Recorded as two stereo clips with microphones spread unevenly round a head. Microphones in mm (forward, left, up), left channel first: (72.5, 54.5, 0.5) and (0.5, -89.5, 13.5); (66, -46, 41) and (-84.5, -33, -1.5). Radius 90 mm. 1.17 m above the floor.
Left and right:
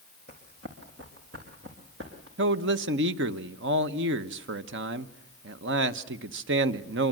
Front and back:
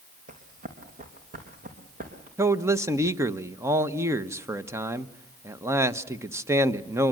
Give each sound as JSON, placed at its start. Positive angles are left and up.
{"t": 0.3, "sound": "running footsteps", "azimuth_deg": -145, "distance_m": 4.0}
{"t": 2.4, "sound": "a man speaking", "azimuth_deg": -115, "distance_m": 1.2}